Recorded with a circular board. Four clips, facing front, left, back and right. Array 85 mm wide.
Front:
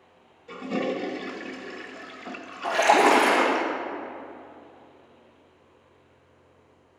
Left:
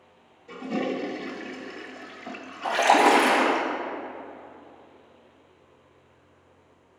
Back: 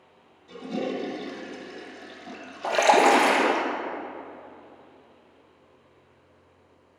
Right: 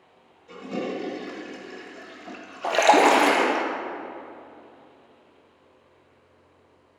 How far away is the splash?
About 1.6 m.